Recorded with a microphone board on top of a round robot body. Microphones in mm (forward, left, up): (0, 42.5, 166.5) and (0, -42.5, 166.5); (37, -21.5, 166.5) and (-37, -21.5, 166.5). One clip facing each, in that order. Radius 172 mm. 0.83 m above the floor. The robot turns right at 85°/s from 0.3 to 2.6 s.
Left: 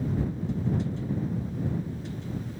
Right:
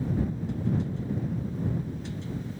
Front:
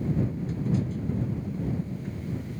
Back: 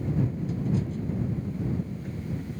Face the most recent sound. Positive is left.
No sound to turn to.